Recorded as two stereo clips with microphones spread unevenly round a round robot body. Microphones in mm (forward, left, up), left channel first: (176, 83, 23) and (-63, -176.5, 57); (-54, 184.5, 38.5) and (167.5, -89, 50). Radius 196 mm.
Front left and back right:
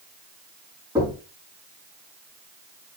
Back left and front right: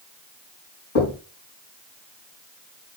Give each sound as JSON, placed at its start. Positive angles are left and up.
{"t": 0.9, "sound": "knocking", "azimuth_deg": 145, "distance_m": 4.5}